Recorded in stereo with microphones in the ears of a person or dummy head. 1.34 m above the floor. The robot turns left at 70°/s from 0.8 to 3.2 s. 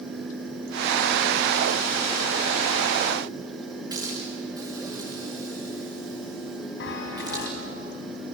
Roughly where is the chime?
Left.